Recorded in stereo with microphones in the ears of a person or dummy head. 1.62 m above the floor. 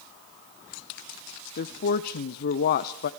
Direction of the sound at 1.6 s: 55° left (ahead or behind).